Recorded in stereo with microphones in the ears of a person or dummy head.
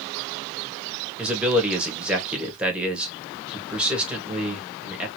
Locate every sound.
1.2 s a man speaking: 10° right (ahead or behind), 1.5 m